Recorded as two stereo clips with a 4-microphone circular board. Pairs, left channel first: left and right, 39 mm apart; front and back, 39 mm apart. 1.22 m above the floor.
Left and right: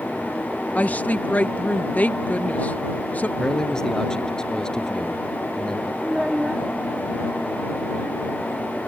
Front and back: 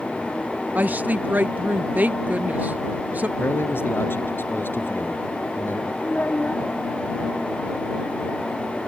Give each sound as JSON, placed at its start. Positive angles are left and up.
{"t": 0.8, "sound": "a woman speaking", "azimuth_deg": 135}
{"t": 3.4, "sound": "a man speaking", "azimuth_deg": 20}
{"t": 6.0, "sound": "a child speaking", "azimuth_deg": -20}